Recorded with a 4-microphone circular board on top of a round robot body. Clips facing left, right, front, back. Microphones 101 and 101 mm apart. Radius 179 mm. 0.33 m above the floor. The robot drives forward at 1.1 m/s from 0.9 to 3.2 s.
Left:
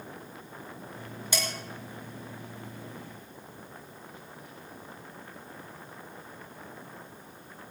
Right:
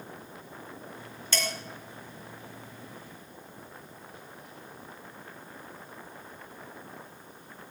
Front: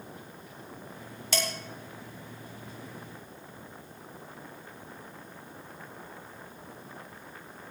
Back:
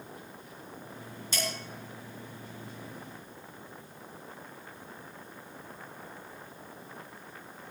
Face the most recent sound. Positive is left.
turn(degrees=55)